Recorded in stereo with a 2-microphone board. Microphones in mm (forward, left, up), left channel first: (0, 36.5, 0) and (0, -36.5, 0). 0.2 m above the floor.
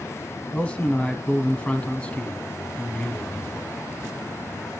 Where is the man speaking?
15° left (ahead or behind), 1.2 m.